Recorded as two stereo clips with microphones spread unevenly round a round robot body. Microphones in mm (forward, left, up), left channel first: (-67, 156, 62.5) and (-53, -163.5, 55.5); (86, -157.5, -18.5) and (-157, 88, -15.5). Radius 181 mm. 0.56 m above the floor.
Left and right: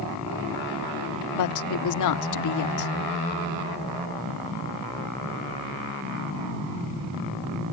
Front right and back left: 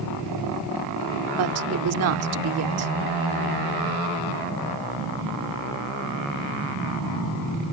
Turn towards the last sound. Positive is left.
turn(degrees=95)